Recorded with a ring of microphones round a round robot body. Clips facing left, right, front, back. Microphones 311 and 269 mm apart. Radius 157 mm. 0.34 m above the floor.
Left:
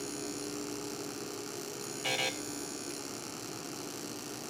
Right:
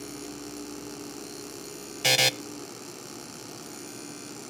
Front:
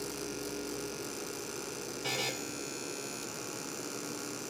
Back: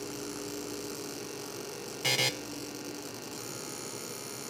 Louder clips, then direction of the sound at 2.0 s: Right 9 dB, back 4 dB; 115° right.